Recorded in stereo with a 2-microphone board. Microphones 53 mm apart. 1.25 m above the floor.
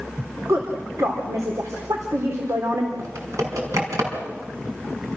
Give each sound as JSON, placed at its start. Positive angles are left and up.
{"t": 0.5, "sound": "a woman speaking", "side_deg": -85, "distance_m": 4.0}
{"t": 3.0, "sound": "typing on a keyboard", "side_deg": -75, "distance_m": 6.0}